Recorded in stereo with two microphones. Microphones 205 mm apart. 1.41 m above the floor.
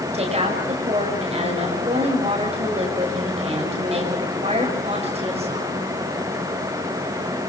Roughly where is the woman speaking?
Right.